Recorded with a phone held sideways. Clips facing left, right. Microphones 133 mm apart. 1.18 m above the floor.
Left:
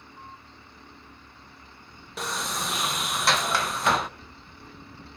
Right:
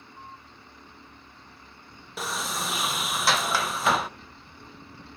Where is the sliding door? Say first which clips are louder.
Even; centre (ahead or behind), 0.8 m.